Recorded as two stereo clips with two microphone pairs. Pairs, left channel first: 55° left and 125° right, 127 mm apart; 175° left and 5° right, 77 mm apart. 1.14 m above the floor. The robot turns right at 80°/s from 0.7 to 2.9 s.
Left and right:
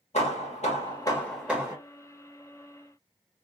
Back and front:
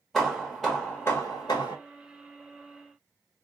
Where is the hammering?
90° left, 1.3 m; by 1.8 s 175° left, 1.3 m.